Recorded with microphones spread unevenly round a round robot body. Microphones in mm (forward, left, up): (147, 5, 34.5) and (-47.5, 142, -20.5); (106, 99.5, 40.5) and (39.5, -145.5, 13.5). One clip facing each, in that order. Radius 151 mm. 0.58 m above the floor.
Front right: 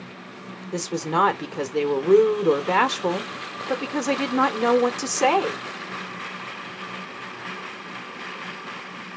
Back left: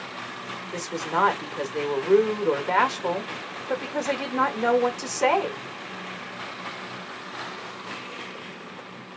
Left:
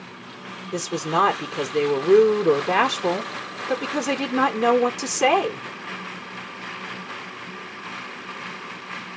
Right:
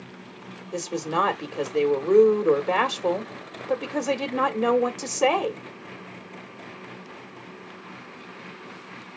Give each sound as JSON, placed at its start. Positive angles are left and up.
{"t": 0.7, "sound": "a woman speaking", "azimuth_deg": 15, "distance_m": 1.4}